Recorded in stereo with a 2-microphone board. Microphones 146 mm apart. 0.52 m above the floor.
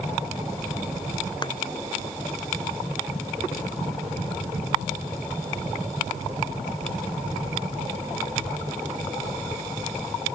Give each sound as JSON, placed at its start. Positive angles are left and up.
{"t": 1.4, "sound": "a thud", "side_deg": 30}